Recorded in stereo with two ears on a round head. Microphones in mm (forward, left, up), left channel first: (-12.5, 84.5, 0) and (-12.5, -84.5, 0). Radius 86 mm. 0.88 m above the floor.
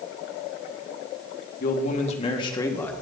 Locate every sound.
1.6 s a man speaking: 45° left (ahead or behind), 2.0 m; by 2.9 s 10° left (ahead or behind), 1.8 m